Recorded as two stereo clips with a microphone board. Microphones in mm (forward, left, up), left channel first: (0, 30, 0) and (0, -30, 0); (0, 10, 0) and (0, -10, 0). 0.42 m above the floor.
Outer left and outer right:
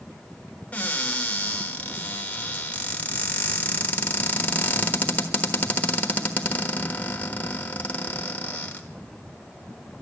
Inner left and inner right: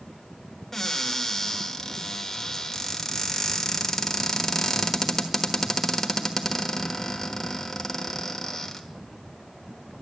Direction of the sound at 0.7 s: 25° left (ahead or behind).